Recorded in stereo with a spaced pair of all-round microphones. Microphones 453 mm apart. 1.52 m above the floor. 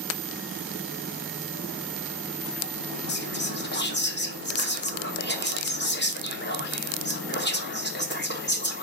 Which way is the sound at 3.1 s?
25° left (ahead or behind).